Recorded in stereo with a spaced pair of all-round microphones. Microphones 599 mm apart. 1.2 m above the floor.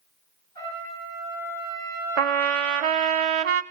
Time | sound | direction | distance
0.6 | a trumpet | 75° left (ahead or behind) | 7.5 m
2.2 | a trumpet | 60° right (ahead or behind) | 0.5 m